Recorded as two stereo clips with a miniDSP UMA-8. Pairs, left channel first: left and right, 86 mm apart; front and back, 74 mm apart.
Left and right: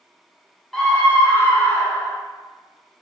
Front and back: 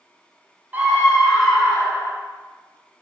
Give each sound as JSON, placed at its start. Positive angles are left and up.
{"t": 0.7, "sound": "a scream", "azimuth_deg": 175, "distance_m": 1.1}